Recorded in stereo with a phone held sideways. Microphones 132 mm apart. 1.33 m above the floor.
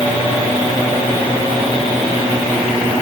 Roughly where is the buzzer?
I don't hear a buzzer.